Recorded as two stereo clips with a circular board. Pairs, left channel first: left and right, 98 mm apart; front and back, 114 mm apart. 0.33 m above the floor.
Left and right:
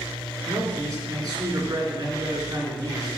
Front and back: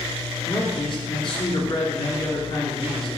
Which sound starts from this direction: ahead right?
A man speaking, at 0.5 s.